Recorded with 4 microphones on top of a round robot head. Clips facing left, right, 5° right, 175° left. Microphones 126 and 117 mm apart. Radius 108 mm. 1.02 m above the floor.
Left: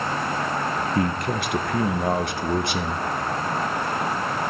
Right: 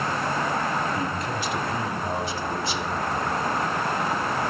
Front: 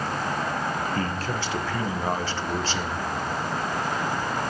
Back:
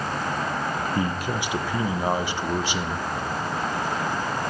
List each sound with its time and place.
0.9 s a man speaking: 100° left, 1.1 m